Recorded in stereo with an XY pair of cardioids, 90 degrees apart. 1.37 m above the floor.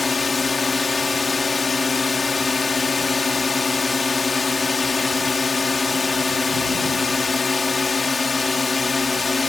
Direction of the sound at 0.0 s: 35° left.